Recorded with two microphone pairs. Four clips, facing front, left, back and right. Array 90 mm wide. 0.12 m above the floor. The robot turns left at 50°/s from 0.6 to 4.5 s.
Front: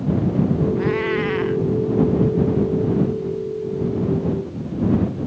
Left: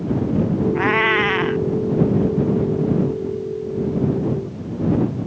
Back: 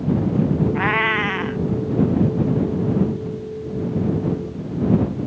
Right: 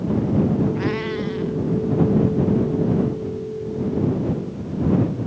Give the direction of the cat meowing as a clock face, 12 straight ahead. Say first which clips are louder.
Left 6 dB, back 1 dB; 7 o'clock.